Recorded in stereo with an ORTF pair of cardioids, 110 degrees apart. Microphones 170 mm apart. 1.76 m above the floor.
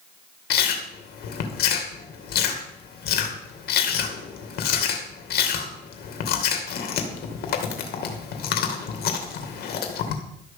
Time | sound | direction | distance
0.5 | chewing | 65° left | 2.5 m